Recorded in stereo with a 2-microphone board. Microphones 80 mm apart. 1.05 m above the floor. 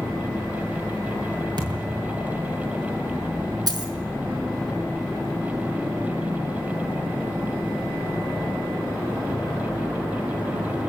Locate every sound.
1.6 s a thud: 60° right (ahead or behind), 8 m
3.7 s a dropped coin: 55° right (ahead or behind), 6 m